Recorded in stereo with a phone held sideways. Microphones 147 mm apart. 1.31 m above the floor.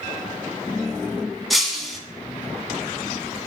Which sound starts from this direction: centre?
Breaking glass, at 1.5 s.